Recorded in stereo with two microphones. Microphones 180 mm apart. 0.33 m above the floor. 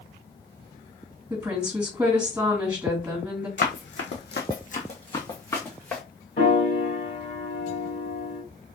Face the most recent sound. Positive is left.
turn(degrees=50)  # may be behind; listen again after turning